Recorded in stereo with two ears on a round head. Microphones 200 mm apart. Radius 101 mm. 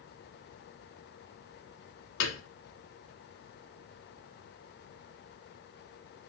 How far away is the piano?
About 0.7 m.